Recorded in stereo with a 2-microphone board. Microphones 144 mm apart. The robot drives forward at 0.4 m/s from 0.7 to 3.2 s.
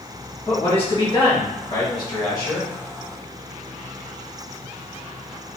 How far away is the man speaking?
About 1.1 m.